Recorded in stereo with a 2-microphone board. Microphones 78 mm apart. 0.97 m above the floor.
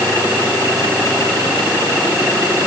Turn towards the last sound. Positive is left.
No sound to turn to.